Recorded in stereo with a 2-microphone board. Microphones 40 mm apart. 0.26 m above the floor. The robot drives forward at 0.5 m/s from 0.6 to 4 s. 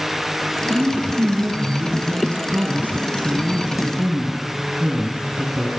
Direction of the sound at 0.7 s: 65° right (ahead or behind).